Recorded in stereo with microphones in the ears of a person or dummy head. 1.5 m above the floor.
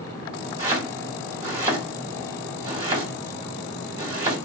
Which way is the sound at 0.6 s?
30° right (ahead or behind).